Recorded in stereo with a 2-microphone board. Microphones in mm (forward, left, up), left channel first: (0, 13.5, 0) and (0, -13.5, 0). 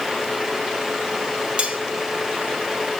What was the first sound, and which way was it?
Cutlery clinking, 45° right (ahead or behind).